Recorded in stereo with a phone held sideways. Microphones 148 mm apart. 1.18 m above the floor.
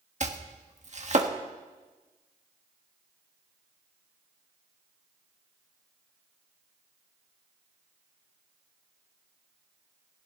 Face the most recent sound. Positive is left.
turn(degrees=-50)  # may be behind; listen again after turning